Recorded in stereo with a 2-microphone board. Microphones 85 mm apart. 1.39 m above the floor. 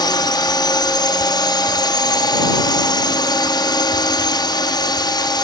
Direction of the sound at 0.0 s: 60° left (ahead or behind).